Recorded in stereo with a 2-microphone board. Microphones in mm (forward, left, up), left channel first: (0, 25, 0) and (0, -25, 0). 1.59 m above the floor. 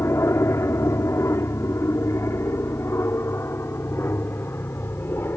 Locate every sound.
0.0 s an aircraft: 70° left (ahead or behind); by 5.4 s 50° left (ahead or behind)